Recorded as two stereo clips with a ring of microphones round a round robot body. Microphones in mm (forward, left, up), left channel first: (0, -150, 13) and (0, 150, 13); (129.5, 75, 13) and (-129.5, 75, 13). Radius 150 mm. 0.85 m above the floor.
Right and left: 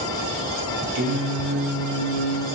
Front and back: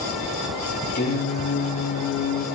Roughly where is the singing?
Ahead left.